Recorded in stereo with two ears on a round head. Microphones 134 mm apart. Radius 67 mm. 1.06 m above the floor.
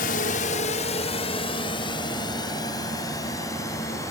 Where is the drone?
65° left (ahead or behind); by 4.1 s 20° left (ahead or behind).